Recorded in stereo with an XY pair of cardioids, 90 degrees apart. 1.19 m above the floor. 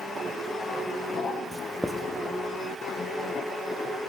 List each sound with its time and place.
1.5 s writing: 15° right, 0.9 m